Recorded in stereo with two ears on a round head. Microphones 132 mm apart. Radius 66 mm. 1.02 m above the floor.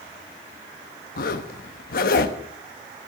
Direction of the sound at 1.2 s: 70° left (ahead or behind).